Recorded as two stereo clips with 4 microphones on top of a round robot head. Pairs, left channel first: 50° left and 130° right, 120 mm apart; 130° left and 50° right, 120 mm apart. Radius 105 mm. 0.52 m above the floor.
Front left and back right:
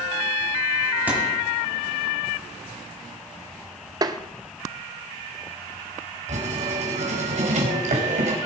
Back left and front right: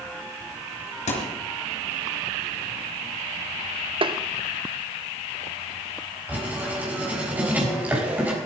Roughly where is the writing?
Behind right.